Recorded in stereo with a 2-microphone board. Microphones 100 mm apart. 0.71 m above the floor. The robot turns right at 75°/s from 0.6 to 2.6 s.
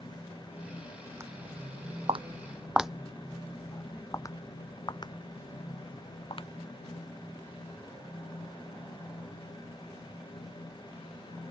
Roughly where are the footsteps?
Right.